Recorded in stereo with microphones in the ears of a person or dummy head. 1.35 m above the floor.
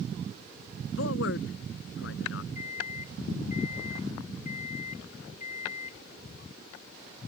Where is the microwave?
50° left (ahead or behind).